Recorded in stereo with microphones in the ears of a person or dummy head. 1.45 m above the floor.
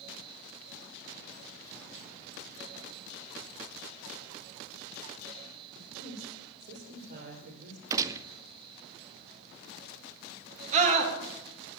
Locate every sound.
5.7 s a woman speaking: 50° right (ahead or behind), 5 m
7.9 s a gunshot: 20° right (ahead or behind), 0.5 m
10.7 s a scream: 40° right (ahead or behind), 2.5 m